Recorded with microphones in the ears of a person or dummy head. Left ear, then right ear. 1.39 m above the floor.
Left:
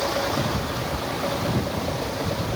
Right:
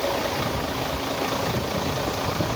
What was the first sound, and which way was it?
Only background noise.